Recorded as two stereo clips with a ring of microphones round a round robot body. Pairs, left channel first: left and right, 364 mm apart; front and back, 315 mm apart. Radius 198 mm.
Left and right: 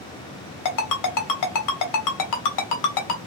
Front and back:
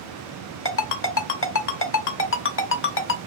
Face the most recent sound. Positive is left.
turn(degrees=50)